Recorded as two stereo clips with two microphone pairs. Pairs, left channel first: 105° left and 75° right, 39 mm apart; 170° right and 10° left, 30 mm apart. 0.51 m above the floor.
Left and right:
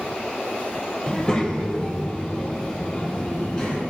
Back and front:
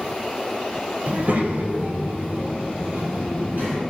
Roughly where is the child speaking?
Ahead left.